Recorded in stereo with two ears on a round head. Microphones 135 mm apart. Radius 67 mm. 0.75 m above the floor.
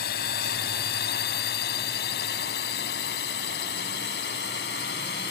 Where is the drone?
70° left (ahead or behind); by 5.3 s 80° left.